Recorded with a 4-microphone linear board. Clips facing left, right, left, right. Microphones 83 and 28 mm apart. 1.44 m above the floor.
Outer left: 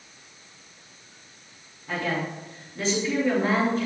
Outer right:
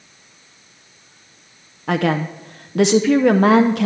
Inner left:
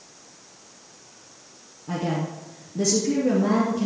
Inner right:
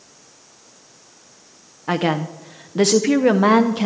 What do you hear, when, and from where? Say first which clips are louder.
1.9 s a woman speaking: outer right 9 dB, inner right 7 dB; 80° right, 0.6 m